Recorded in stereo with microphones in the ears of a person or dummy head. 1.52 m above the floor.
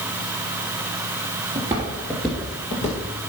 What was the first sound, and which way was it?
Footsteps, 20° right (ahead or behind).